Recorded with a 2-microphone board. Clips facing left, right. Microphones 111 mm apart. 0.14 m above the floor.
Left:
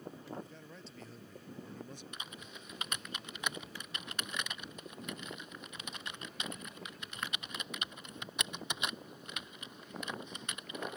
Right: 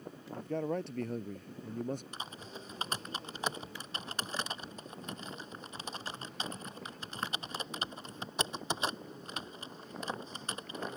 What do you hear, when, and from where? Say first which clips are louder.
0.3 s a man speaking: right 12 dB; 65° right (ahead or behind); by 2.0 s 50° right (ahead or behind)
2.1 s typing on a keyboard: right 4 dB; 35° right (ahead or behind)